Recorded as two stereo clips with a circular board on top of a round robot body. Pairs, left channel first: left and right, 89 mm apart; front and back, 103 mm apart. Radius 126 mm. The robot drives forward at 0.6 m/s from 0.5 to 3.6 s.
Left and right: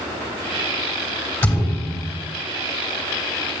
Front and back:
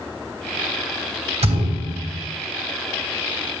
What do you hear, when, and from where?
1.4 s a thud: 160° left, 3 m